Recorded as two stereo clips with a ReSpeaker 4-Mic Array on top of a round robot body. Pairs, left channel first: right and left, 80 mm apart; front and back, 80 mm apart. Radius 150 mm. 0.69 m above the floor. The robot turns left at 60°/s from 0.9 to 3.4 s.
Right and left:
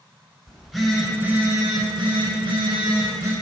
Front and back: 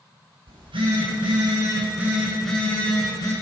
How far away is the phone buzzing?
About 4 m.